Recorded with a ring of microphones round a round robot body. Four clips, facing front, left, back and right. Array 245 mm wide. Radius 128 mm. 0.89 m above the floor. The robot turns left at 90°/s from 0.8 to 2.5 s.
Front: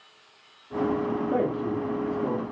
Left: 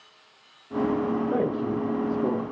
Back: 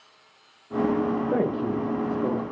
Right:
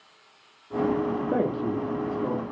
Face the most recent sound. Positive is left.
turn(degrees=115)